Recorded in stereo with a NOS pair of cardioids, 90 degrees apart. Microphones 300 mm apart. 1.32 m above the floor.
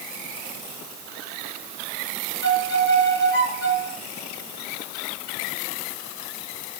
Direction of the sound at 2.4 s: 35° left.